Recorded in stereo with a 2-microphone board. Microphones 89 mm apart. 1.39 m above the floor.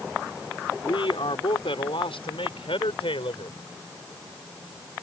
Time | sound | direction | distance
0.8 | a man speaking | 75° left (ahead or behind) | ?